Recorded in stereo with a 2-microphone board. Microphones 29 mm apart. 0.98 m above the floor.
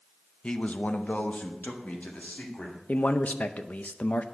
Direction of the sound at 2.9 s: 65° left (ahead or behind).